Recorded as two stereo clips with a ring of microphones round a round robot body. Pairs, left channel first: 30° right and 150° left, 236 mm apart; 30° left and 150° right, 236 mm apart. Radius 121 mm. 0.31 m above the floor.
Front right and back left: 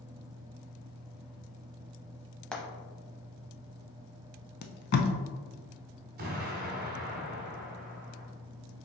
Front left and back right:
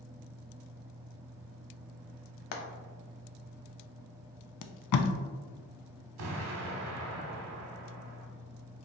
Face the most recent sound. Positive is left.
turn(degrees=-160)